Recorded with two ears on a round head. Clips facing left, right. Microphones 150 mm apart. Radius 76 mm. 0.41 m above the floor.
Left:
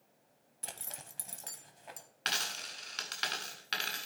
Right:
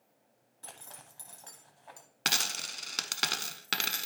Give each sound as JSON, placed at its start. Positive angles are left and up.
{"t": 0.6, "sound": "a zipper", "side_deg": 20, "distance_m": 0.8}
{"t": 2.2, "sound": "a dropped coin", "side_deg": -55, "distance_m": 0.7}